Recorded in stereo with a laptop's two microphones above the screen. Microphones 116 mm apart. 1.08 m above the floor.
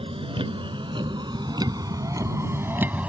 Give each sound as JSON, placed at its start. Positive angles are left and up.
{"t": 0.0, "sound": "a vehicle", "side_deg": -55}